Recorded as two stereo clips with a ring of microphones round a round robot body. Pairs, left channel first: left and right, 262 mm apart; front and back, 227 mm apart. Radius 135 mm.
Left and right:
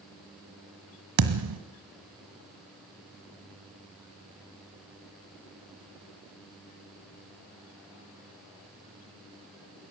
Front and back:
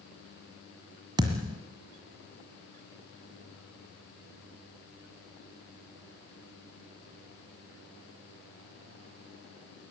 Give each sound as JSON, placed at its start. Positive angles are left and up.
{"t": 1.2, "sound": "a thud", "azimuth_deg": -105, "distance_m": 1.6}